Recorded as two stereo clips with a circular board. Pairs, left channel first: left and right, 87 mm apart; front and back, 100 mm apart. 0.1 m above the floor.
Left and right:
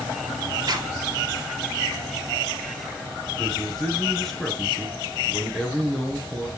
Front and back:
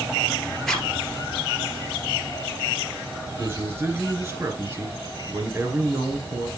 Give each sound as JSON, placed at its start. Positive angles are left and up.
{"t": 0.7, "sound": "a zipper", "azimuth_deg": -85, "distance_m": 1.8}
{"t": 3.4, "sound": "a man speaking", "azimuth_deg": 165, "distance_m": 1.5}